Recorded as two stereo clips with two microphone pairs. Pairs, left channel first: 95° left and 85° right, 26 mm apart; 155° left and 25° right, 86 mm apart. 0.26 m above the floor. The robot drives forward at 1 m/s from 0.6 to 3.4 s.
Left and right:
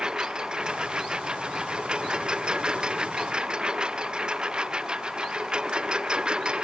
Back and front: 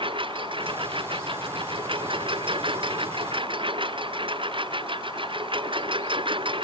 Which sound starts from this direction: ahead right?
A lawn mower, at 0.0 s.